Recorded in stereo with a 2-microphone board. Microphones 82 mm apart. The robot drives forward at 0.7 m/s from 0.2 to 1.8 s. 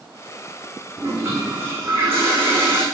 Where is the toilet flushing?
35° right (ahead or behind), 4.5 m; by 2.8 s 30° right (ahead or behind), 5 m.